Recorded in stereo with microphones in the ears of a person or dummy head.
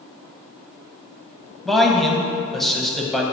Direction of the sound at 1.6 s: 5° left (ahead or behind).